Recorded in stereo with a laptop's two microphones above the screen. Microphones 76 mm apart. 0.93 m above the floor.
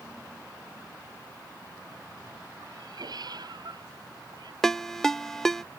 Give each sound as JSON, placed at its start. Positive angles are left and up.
{"t": 2.6, "sound": "a cat meowing", "side_deg": -60}
{"t": 4.6, "sound": "a ringtone", "side_deg": 5}